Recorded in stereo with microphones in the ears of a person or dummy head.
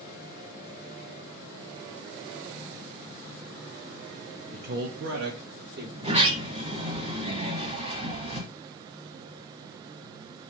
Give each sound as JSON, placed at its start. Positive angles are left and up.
{"t": 4.5, "sound": "a man speaking", "side_deg": -40, "distance_m": 0.6}
{"t": 6.0, "sound": "a sliding door", "side_deg": -35, "distance_m": 1.6}